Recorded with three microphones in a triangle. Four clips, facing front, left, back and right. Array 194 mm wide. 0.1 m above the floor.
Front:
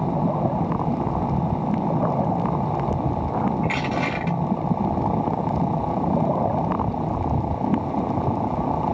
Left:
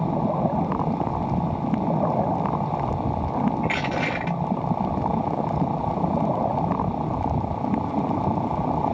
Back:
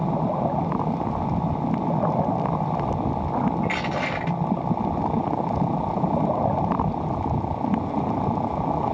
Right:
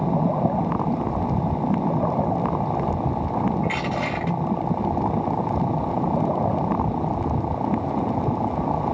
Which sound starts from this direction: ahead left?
Crushing, at 3.6 s.